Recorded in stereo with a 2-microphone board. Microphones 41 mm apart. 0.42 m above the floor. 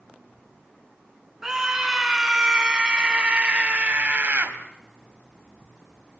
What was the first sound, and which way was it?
A scream, 10° right (ahead or behind).